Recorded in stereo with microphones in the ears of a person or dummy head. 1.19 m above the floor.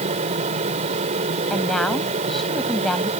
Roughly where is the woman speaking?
Centre.